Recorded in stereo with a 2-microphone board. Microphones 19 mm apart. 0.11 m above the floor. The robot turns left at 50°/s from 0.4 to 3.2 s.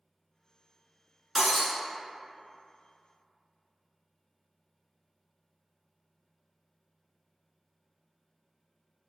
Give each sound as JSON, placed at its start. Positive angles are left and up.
{"t": 1.4, "sound": "breaking glass", "side_deg": -10, "distance_m": 0.8}